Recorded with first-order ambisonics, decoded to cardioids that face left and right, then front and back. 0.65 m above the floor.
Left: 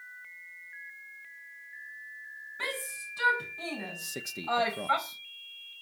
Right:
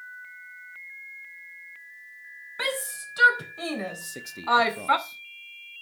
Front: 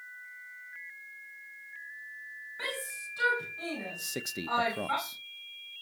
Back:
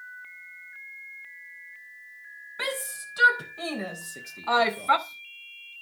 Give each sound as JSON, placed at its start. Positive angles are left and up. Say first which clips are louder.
{"t": 2.6, "sound": "a shout", "louder": "right 6 dB, back 5 dB", "azimuth_deg": -125, "distance_m": 4.5}
{"t": 4.0, "sound": "a man speaking", "louder": "even, front 3 dB", "azimuth_deg": 10, "distance_m": 0.6}